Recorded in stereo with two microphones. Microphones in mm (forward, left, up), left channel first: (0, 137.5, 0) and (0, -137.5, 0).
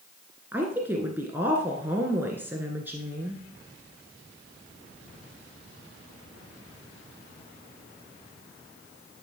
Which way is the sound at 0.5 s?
5° right (ahead or behind).